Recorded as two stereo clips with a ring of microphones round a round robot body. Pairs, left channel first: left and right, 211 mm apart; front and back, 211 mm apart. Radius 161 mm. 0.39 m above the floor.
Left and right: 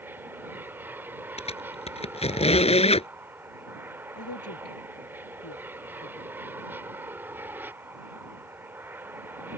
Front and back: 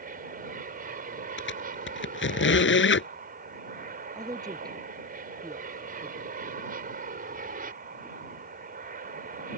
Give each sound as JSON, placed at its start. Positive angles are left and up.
{"t": 0.0, "sound": "an aircraft", "azimuth_deg": -165}
{"t": 1.4, "sound": "a squeak", "azimuth_deg": 30}
{"t": 4.2, "sound": "a woman speaking", "azimuth_deg": 110}